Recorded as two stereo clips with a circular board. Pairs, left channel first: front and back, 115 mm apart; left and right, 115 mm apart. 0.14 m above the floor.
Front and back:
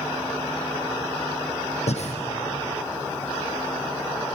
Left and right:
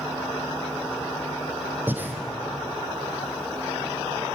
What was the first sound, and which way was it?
Breathing, 15° right.